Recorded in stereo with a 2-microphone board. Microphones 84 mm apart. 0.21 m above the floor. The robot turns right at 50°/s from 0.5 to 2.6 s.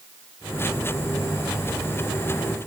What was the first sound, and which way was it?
Only background noise.